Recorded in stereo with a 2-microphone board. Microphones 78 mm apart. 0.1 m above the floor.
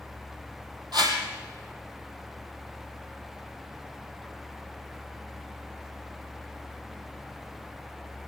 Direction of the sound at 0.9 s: 65° right (ahead or behind).